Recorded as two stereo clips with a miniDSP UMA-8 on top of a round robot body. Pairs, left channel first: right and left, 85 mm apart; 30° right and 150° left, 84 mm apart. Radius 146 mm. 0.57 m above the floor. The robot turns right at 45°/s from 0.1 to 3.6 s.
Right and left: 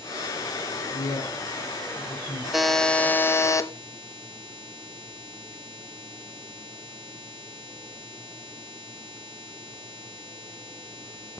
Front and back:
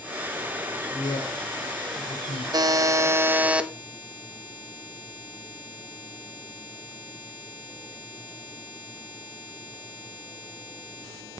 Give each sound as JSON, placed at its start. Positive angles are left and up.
{"t": 0.9, "sound": "a woman speaking", "azimuth_deg": -85, "distance_m": 8.0}
{"t": 2.5, "sound": "a buzzer", "azimuth_deg": 175, "distance_m": 1.4}